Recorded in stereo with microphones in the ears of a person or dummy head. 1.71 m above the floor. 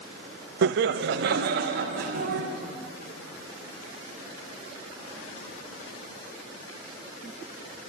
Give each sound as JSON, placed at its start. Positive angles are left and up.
{"t": 0.6, "sound": "laughter", "side_deg": -65, "distance_m": 0.6}